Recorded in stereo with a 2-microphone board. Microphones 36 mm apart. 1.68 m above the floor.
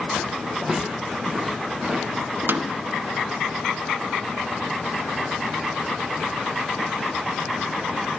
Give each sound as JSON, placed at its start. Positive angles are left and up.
{"t": 0.6, "sound": "footsteps", "side_deg": -5, "distance_m": 4.0}
{"t": 2.5, "sound": "a snare drum", "side_deg": -75, "distance_m": 0.6}